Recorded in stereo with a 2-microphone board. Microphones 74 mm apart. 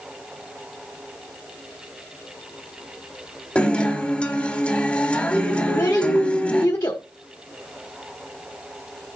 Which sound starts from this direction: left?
A child speaking, at 5.7 s.